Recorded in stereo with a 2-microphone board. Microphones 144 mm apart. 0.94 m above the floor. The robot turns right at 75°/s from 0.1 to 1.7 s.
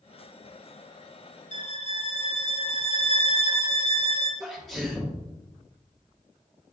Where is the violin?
55° left (ahead or behind), 1.0 m; by 4.3 s 45° left (ahead or behind), 1.0 m.